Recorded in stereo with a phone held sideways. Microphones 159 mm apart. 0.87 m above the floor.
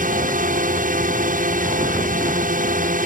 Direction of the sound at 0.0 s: 60° right (ahead or behind).